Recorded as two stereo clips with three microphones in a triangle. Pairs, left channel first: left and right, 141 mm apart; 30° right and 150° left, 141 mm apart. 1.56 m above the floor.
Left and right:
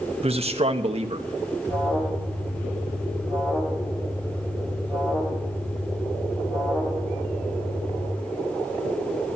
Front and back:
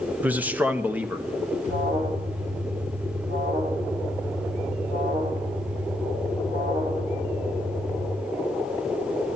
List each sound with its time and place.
0.2 s a man speaking: 130° right, 1.0 m
1.6 s an alarm: 155° left, 6.5 m